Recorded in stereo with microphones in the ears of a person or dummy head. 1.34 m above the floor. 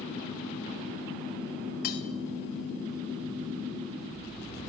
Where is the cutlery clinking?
45° left (ahead or behind), 0.6 m.